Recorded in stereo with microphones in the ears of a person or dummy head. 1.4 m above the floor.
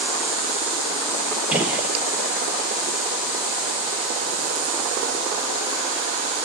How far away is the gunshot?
About 1.0 m.